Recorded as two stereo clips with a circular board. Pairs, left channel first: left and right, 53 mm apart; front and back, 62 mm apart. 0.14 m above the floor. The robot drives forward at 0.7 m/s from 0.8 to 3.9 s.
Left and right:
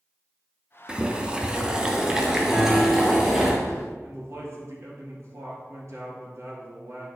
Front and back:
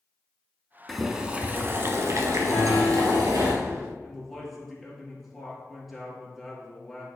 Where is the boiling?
80° right, 0.7 m; by 3.5 s 175° right, 1.9 m.